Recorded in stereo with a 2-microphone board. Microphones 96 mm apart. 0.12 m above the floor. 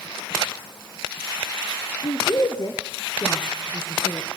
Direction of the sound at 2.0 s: 45° left (ahead or behind).